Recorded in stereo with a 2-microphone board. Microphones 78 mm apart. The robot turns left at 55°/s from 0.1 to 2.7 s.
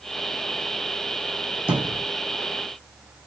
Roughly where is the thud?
Centre.